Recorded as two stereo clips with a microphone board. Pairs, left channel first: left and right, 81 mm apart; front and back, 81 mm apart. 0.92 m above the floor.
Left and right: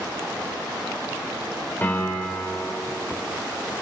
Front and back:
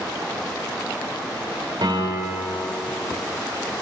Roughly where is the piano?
Behind left.